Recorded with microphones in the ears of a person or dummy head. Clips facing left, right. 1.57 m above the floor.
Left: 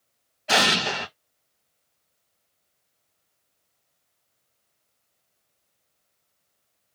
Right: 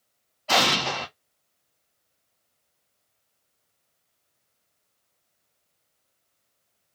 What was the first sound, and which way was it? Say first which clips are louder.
An explosion: even; 20° left (ahead or behind).